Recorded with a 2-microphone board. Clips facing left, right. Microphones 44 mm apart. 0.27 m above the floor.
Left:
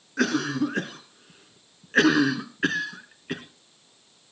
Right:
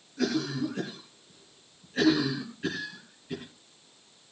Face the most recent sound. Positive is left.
turn(degrees=60)  # may be behind; listen again after turning